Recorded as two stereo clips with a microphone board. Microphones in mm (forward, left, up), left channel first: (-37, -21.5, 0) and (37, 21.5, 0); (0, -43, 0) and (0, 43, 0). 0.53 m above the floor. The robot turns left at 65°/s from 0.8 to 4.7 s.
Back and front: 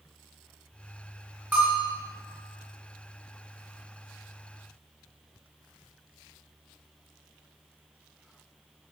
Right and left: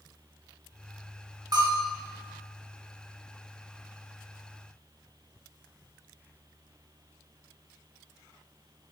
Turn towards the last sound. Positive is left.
turn(degrees=-110)